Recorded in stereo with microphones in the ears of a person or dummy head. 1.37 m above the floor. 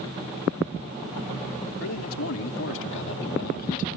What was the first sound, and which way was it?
A man speaking, 85° left.